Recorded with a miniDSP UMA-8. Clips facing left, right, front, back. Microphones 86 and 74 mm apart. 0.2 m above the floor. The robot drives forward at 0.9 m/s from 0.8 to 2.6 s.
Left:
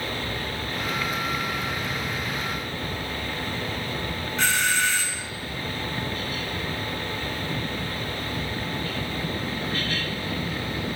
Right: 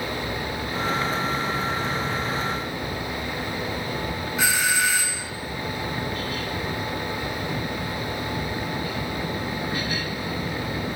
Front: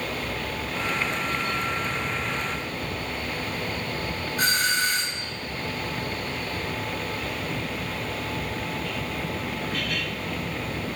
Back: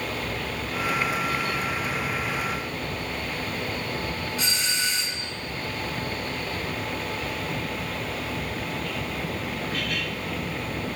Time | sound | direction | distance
4.4 | a doorbell | 10° right | 2 m